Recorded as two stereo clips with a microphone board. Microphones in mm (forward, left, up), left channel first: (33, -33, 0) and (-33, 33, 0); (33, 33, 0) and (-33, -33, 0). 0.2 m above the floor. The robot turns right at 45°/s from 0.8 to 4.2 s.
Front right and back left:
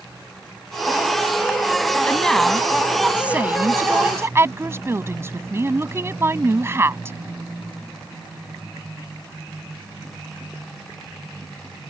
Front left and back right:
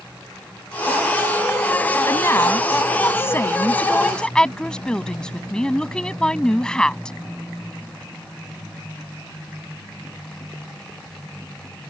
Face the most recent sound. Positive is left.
turn(degrees=115)